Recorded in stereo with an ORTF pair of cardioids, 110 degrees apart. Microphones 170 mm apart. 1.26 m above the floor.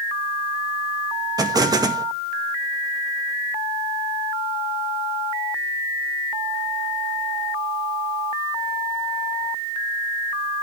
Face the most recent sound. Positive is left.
turn(degrees=-20)